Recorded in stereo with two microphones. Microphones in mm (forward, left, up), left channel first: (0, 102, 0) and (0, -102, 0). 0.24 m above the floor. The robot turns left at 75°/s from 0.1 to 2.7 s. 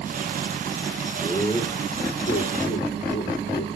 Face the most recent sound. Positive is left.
turn(degrees=70)  # may be behind; listen again after turning